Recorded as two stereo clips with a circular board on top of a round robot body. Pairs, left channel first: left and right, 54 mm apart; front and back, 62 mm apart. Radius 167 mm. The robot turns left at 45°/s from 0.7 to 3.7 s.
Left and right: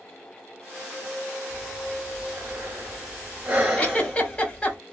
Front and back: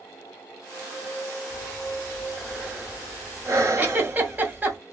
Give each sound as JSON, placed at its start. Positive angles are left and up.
{"t": 1.5, "sound": "breathing", "azimuth_deg": -55, "distance_m": 2.0}
{"t": 3.8, "sound": "a giggle", "azimuth_deg": 145, "distance_m": 1.6}